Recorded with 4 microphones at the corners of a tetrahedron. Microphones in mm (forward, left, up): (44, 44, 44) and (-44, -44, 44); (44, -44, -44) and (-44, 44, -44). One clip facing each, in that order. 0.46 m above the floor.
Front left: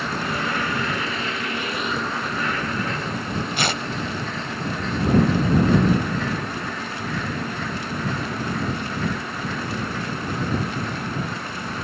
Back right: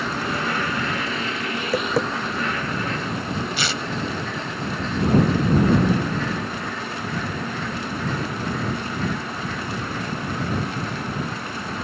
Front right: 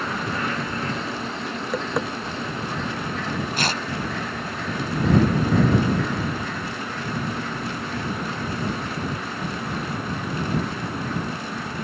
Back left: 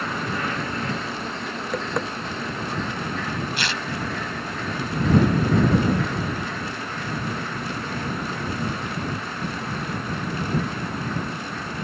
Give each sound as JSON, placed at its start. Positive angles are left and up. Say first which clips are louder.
{"t": 1.6, "sound": "tapping", "louder": "back right 8 dB, front right 1 dB", "azimuth_deg": -130}
{"t": 3.6, "sound": "tearing paper", "louder": "front left 2 dB, front right 3 dB", "azimuth_deg": 5}